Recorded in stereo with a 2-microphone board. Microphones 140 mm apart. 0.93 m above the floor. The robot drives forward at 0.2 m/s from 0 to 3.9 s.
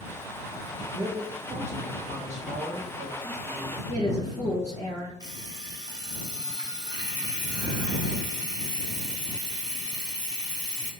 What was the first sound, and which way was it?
A man speaking, 45° right (ahead or behind).